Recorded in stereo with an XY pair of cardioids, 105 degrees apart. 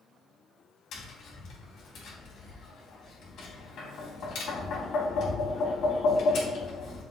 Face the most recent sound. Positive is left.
turn(degrees=65)